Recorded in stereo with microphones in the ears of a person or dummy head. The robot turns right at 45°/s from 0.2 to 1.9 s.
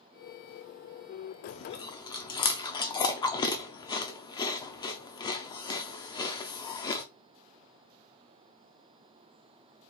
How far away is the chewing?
About 0.6 m.